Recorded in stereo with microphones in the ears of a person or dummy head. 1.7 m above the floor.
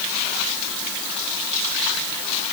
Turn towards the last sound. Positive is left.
No sound to turn to.